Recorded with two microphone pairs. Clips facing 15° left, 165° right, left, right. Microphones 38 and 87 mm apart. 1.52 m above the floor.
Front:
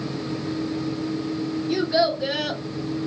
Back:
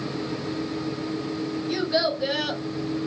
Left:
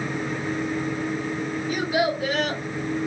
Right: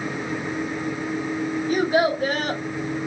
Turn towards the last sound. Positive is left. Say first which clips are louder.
# front 3 dB, right 4 dB
turn(degrees=-75)